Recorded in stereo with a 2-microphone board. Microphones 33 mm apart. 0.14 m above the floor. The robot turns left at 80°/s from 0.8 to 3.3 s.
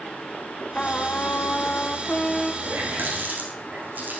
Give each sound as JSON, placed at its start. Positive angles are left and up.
{"t": 0.8, "sound": "a trumpet", "azimuth_deg": 145, "distance_m": 0.9}
{"t": 2.6, "sound": "a running tap", "side_deg": -60, "distance_m": 5.5}